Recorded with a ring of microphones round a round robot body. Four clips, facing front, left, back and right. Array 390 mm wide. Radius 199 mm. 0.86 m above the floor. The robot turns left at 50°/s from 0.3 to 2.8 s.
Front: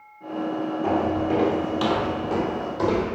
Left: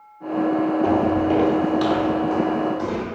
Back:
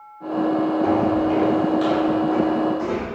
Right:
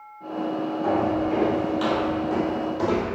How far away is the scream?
No scream in this recording.